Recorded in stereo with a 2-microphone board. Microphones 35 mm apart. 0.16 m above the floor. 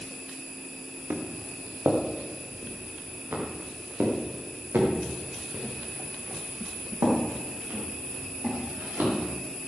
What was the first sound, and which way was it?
Footsteps, 85° right.